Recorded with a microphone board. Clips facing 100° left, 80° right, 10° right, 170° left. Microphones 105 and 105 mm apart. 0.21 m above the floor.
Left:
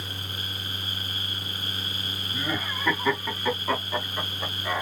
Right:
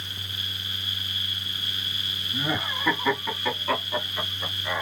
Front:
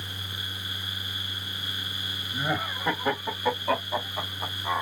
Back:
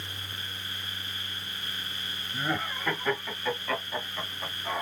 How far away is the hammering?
No hammering in this recording.